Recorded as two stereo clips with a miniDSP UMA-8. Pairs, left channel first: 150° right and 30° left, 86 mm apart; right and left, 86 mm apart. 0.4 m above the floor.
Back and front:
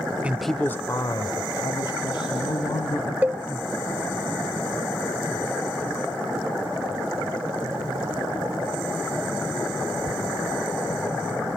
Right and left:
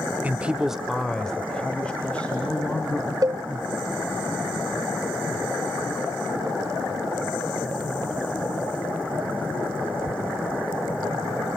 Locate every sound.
0.2 s a man speaking: 60° left, 0.9 m; by 3.1 s 165° right, 3.5 m
3.2 s a cowbell: 95° left, 0.7 m